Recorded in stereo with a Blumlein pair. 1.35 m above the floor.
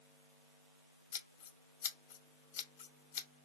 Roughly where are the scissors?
Ahead left.